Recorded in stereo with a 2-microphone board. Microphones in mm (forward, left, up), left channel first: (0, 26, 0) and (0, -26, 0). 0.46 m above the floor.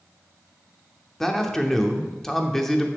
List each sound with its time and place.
1.2 s a man speaking: 5° left (ahead or behind), 0.7 m